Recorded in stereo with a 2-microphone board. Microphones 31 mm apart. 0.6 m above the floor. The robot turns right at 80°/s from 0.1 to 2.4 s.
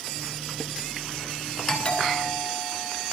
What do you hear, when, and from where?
1.7 s a doorbell: 15° left, 9.5 m; by 3.0 s 70° left, 9.5 m